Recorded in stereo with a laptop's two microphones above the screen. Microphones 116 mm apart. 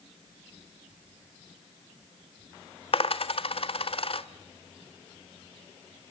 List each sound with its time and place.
2.9 s a dropped coin: 55° left (ahead or behind), 1.1 m